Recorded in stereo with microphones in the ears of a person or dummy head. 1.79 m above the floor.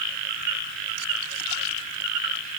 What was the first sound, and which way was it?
Only background noise.